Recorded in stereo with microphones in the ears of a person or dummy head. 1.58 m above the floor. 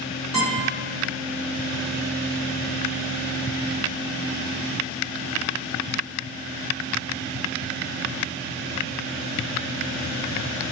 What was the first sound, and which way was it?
A guitar, 10° right (ahead or behind).